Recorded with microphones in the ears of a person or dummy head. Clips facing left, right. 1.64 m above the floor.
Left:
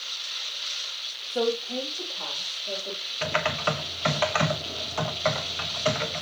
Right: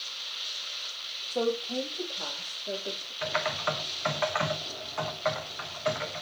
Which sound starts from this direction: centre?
A woman speaking, at 1.3 s.